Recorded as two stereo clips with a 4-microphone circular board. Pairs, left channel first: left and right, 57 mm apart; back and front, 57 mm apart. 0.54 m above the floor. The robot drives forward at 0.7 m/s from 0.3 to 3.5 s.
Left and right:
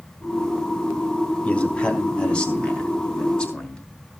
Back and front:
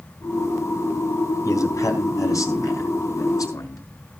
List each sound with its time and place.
1.4 s a man speaking: 155° left, 3.5 m; by 3.8 s 165° left, 4.5 m